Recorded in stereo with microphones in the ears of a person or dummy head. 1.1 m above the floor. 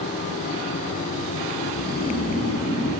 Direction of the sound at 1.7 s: 10° right (ahead or behind).